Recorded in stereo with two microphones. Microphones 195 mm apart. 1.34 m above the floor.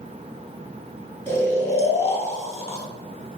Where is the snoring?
15° left (ahead or behind), 1.1 m.